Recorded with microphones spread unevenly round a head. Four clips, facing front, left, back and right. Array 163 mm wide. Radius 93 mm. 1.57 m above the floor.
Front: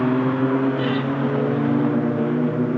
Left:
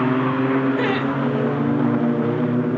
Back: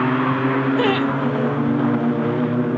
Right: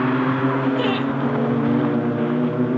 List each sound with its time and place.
0.8 s laughter: 175° left, 5 m